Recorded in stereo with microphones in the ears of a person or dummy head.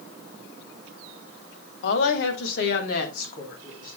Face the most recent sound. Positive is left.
turn(degrees=55)  # may be behind; listen again after turning